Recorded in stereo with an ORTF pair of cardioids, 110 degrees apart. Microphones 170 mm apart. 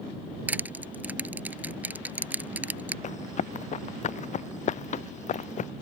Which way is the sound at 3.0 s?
45° left.